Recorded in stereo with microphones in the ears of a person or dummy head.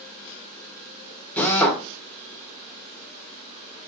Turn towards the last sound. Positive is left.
turn(degrees=10)  # may be behind; listen again after turning